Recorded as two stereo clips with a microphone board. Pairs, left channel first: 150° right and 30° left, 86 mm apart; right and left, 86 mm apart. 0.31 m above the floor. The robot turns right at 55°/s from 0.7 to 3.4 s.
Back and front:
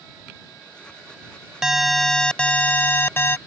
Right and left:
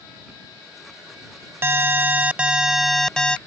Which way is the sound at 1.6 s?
105° left.